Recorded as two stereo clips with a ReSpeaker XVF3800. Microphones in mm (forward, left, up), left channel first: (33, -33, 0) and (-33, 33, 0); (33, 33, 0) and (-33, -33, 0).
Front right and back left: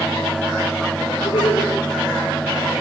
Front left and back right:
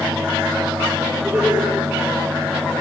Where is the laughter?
60° right, 6 m.